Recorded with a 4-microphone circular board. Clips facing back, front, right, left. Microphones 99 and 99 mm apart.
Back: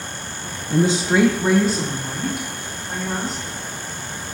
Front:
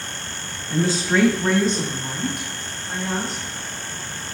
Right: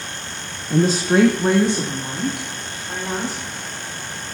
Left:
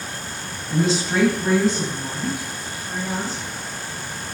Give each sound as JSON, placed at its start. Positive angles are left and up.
{"t": 0.7, "sound": "a woman speaking", "azimuth_deg": -130, "distance_m": 0.8}